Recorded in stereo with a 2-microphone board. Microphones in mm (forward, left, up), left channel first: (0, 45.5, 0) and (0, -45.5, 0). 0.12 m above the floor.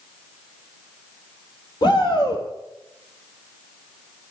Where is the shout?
50° left (ahead or behind), 3.5 m.